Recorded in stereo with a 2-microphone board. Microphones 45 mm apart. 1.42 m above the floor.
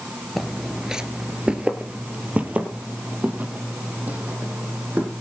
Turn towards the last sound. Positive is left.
turn(degrees=-35)  # may be behind; listen again after turning